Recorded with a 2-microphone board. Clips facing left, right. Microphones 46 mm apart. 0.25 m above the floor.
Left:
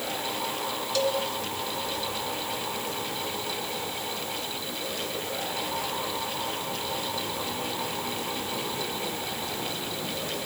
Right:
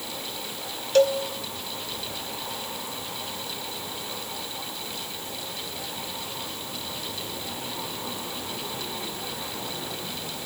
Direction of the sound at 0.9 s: 45° right (ahead or behind).